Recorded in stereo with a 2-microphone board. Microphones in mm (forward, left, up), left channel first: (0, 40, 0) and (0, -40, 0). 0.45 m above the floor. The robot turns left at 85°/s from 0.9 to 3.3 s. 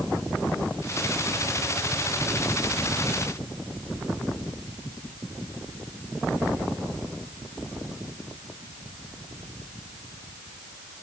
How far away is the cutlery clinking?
I don't hear cutlery clinking.